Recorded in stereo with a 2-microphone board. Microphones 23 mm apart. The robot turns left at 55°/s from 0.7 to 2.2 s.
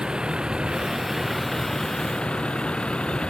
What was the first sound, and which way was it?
A vehicle, 140° right.